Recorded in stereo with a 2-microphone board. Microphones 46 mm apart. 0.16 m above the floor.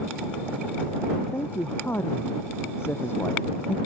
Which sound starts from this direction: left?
A man speaking, at 1.3 s.